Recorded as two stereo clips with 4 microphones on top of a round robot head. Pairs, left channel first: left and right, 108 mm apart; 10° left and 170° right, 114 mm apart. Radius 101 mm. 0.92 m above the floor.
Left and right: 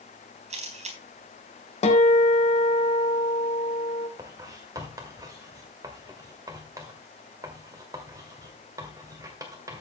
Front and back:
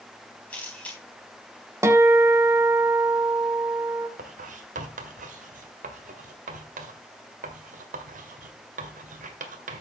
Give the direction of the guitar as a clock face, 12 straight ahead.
8 o'clock.